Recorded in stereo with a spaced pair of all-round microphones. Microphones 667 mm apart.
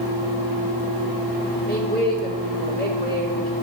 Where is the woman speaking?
15° left (ahead or behind), 2.5 m.